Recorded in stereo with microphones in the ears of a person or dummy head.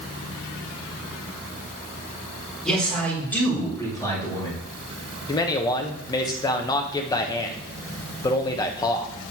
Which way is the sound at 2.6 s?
5° right (ahead or behind).